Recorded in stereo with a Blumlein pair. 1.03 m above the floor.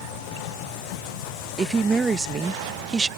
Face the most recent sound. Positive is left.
turn(degrees=-15)